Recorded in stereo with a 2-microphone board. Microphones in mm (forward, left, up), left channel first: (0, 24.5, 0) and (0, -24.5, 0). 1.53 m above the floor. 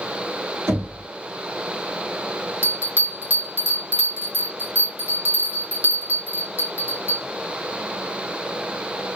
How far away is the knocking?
About 3.5 m.